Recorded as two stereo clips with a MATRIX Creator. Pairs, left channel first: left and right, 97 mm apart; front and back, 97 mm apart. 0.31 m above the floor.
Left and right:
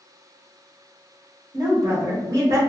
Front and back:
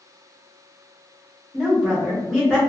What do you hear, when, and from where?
1.5 s a woman speaking: 100° right, 1.1 m